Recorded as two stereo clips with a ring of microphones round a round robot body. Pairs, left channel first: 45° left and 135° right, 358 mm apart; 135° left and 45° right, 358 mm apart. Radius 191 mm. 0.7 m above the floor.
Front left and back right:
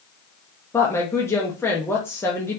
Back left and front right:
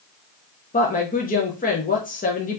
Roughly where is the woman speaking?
Behind left.